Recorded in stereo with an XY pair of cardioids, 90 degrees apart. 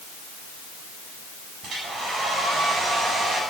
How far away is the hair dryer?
About 6.5 m.